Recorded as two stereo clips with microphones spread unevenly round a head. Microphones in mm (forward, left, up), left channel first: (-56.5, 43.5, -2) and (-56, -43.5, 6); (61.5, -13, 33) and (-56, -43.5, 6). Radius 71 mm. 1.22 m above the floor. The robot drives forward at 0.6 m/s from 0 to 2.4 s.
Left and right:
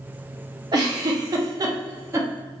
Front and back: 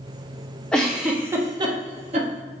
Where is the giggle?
55° right, 0.8 m; by 2.3 s 135° right, 0.9 m.